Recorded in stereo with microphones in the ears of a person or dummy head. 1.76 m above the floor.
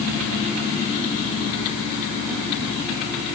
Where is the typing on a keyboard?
No typing on a keyboard in this recording.